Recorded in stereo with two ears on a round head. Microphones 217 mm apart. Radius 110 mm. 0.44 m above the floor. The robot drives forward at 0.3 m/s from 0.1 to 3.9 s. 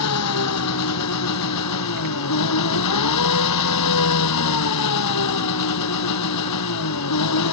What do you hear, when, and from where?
0.0 s an engine running: 70° left (ahead or behind); by 7.5 s 85° left